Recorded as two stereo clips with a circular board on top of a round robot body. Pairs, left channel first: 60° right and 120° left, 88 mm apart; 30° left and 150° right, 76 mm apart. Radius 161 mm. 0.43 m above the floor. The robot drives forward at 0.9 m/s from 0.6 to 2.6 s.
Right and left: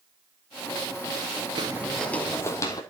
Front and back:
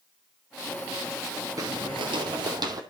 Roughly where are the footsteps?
Behind left.